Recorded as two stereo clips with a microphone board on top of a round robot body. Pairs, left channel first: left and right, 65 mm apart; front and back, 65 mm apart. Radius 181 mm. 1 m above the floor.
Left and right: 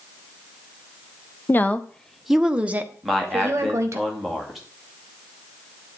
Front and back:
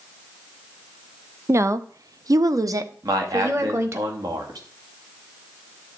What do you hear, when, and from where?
1.5 s a woman speaking: 140° left, 1.0 m; by 4.0 s 135° right, 1.9 m
3.0 s a man speaking: straight behind, 2.5 m